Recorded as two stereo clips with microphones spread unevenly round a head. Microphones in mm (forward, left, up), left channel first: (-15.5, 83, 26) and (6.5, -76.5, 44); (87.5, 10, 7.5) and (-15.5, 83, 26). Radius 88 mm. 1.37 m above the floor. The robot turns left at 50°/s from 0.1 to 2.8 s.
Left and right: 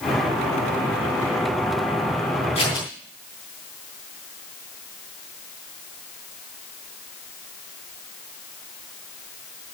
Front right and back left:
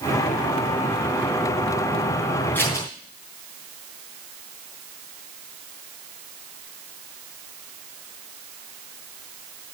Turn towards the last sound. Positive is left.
turn(degrees=30)